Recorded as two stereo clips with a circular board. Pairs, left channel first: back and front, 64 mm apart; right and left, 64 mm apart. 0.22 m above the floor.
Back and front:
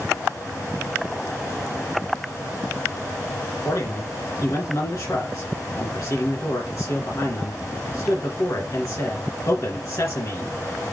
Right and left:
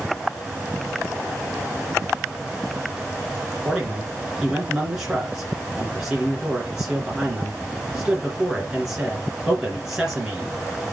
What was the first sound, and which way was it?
A man speaking, 170° left.